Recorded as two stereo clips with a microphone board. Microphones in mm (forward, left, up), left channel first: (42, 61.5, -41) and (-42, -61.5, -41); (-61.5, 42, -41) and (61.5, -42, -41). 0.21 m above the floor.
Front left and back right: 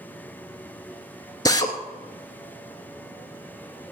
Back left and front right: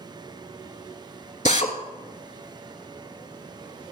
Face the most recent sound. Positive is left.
turn(degrees=115)